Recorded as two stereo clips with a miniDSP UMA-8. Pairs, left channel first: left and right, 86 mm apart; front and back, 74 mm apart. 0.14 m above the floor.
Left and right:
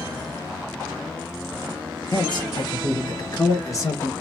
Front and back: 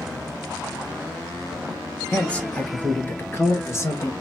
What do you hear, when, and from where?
2.1 s a man speaking: 75° left, 2.5 m; by 4.1 s 40° left, 2 m